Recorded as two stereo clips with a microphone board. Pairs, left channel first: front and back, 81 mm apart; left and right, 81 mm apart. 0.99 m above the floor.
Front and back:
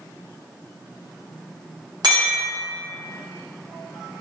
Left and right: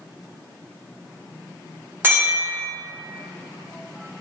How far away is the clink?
About 1.1 m.